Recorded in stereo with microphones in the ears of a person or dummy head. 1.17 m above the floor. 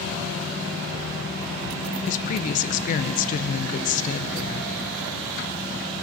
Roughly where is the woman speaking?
Left.